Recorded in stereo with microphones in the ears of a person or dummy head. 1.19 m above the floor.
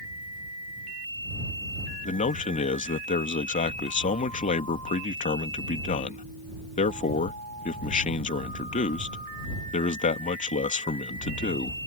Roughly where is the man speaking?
Left.